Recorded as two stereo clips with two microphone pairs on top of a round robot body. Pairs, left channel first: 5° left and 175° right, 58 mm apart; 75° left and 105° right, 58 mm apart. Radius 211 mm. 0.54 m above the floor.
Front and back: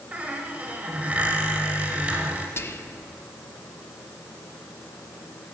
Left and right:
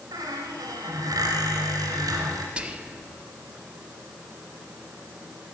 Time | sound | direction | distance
0.1 | a squeak | 100° right | 0.8 m
2.6 | whispering | 35° right | 1.2 m